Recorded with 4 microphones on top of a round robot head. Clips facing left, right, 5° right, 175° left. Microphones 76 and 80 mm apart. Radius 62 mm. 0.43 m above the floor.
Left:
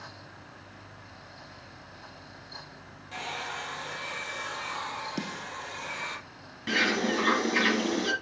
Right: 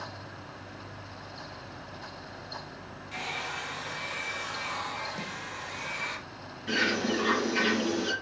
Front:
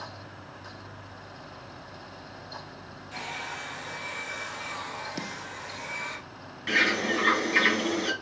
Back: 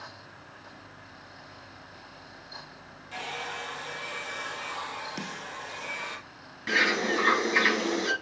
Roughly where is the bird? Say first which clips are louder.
Left 1 dB, even; left.